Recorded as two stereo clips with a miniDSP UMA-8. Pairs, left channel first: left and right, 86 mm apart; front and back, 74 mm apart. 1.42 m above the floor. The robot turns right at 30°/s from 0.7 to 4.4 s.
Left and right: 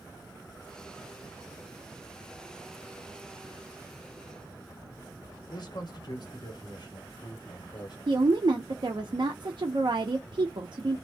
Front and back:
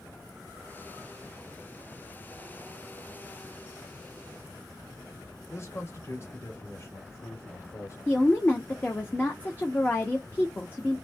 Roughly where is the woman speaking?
Ahead right.